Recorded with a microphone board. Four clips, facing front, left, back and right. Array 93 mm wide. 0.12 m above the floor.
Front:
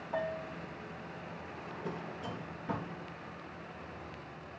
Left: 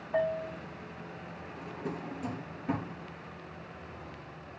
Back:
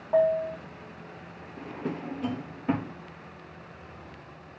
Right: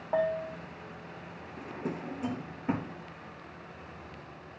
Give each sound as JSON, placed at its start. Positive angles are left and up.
{"t": 0.1, "sound": "a bell", "azimuth_deg": -120, "distance_m": 4.0}
{"t": 1.6, "sound": "a drawer", "azimuth_deg": -155, "distance_m": 1.1}